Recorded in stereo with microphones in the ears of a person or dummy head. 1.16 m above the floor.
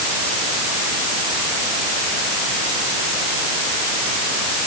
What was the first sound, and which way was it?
Only background noise.